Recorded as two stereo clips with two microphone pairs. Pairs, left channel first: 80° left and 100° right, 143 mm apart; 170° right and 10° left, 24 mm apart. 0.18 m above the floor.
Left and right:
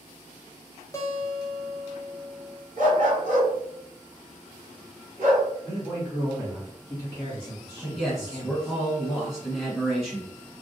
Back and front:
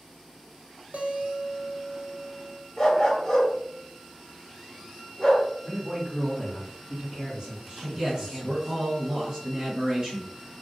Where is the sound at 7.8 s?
15° right, 1.8 m.